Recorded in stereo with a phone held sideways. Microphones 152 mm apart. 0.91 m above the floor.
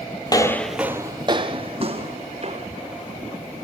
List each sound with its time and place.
0.3 s footsteps: 30° left (ahead or behind), 1.0 m; by 2.7 s 50° right (ahead or behind), 3 m